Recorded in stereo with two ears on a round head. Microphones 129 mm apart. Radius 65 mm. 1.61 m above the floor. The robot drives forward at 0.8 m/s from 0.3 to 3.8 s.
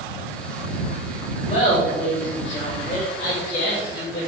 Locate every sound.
1.5 s laughter: 45° left (ahead or behind), 4 m; by 4.3 s 65° left (ahead or behind), 3 m